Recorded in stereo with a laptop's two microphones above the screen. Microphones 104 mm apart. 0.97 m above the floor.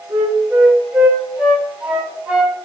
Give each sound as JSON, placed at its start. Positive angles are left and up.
{"t": 0.1, "sound": "a flute", "side_deg": -15, "distance_m": 5.5}